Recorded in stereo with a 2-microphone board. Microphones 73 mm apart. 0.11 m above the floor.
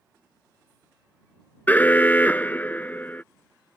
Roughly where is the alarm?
Left.